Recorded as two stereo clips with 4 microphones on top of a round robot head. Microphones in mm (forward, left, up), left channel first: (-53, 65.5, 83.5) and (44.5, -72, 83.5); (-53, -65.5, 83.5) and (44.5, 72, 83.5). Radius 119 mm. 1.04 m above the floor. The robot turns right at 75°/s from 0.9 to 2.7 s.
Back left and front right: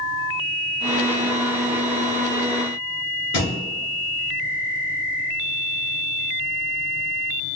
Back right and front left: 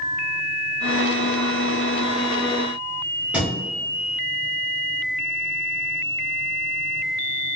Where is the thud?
140° left, 1.6 m.